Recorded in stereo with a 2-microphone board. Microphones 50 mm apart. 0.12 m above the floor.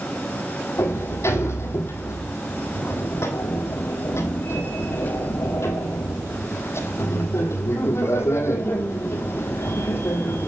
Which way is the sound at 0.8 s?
60° left (ahead or behind).